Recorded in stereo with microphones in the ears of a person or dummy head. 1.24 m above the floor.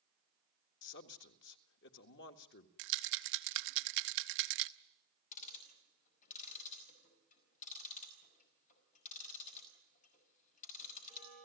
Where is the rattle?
50° right (ahead or behind), 0.7 m.